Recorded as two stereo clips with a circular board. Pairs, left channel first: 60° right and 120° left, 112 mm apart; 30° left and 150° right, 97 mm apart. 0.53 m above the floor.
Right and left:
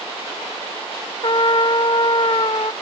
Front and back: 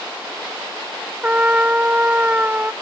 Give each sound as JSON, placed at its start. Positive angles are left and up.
{"t": 1.2, "sound": "a trumpet", "azimuth_deg": -80}